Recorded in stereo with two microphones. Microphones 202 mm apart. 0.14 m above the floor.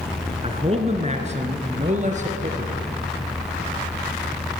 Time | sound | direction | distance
0.4 | a man speaking | 30° right (ahead or behind) | 1.2 m